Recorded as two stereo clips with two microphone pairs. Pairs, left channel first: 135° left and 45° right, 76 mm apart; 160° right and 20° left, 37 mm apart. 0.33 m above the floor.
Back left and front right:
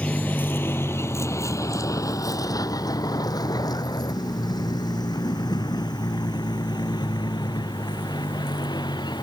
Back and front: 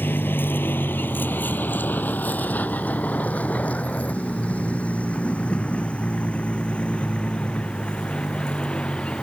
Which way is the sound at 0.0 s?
155° right.